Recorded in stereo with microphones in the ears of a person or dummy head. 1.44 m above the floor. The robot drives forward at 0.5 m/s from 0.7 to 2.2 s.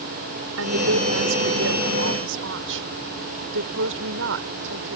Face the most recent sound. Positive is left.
turn(degrees=-60)  # may be behind; listen again after turning